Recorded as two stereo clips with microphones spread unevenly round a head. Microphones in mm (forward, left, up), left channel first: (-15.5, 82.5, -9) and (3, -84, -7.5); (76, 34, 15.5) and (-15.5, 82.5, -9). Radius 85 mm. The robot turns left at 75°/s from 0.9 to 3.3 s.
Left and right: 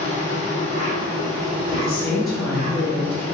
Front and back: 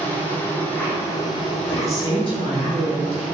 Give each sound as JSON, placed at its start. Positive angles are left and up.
{"t": 0.0, "sound": "an insect", "azimuth_deg": 50, "distance_m": 1.2}
{"t": 1.7, "sound": "a woman speaking", "azimuth_deg": 50, "distance_m": 1.8}